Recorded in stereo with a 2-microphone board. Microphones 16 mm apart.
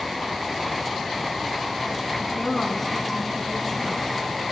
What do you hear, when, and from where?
2.2 s a woman speaking: 25° left (ahead or behind), 2 m